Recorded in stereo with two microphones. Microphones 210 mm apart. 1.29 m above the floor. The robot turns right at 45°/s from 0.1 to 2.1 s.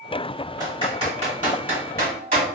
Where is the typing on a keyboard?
20° right (ahead or behind), 1.5 m; by 2.4 s 45° right (ahead or behind), 1.5 m.